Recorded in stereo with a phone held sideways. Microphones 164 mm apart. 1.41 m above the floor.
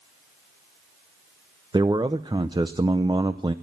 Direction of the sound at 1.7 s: 25° right (ahead or behind).